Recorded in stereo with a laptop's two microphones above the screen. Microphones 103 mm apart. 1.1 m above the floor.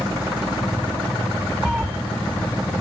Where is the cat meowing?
5° right (ahead or behind), 1.1 m.